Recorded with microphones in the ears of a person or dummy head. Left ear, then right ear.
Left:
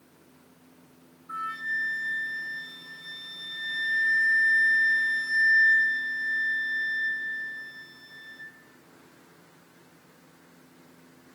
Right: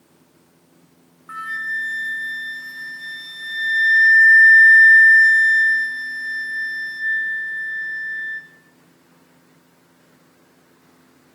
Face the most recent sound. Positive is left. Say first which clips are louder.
# right 6 dB
turn(degrees=-60)  # may be behind; listen again after turning